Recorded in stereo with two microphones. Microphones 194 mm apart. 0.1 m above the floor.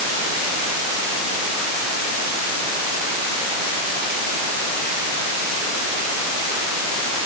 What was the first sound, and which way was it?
Only background noise.